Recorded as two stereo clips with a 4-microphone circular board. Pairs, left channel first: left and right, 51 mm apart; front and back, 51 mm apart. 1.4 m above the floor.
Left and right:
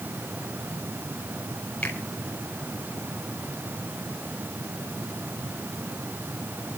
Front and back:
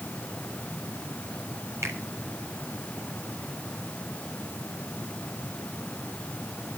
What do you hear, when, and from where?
1.8 s a finger snap: 155° left, 4.5 m